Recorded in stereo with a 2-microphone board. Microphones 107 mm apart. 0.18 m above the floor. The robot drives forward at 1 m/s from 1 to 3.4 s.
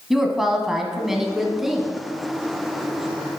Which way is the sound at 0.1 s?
5° right (ahead or behind).